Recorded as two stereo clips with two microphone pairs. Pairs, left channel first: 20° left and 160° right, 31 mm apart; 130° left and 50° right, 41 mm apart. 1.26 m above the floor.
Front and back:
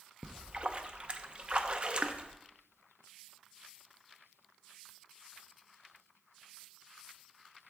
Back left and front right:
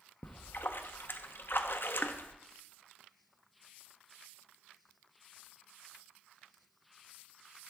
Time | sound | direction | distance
0.2 | a splash | 150° left | 0.6 m